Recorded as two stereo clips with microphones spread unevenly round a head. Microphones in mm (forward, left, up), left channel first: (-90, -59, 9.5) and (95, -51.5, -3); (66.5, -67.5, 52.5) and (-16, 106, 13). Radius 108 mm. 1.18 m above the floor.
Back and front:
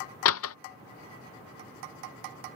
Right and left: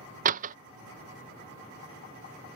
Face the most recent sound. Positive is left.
turn(degrees=165)